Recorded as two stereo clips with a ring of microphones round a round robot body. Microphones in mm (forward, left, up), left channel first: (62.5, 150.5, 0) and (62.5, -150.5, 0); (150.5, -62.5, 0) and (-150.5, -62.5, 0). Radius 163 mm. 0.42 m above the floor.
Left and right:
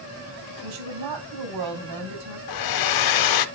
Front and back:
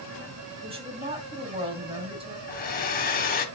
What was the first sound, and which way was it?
A woman speaking, 110° right.